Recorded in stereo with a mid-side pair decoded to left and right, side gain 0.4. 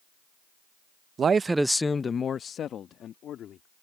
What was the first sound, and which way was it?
A man speaking, 55° right.